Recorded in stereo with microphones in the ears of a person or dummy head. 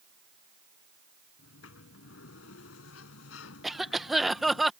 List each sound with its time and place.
1.4 s a sliding door: 80° left
3.6 s a cough: centre (ahead or behind)